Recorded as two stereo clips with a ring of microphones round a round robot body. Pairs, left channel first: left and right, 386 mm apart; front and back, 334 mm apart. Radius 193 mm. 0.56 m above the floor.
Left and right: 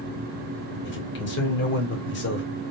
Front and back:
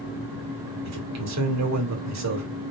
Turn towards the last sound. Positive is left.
turn(degrees=150)